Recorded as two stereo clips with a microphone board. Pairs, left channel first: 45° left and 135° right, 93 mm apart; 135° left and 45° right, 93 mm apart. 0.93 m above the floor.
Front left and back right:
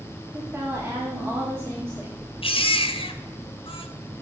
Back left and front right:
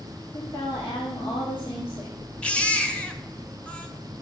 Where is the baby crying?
60° left, 0.9 m.